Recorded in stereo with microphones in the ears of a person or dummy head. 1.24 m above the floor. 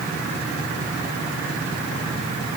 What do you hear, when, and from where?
Only background noise.